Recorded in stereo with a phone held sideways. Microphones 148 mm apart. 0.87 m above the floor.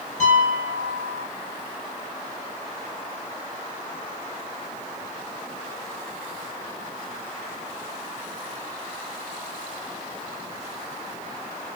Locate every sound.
0.2 s a piano: 55° left (ahead or behind), 4 m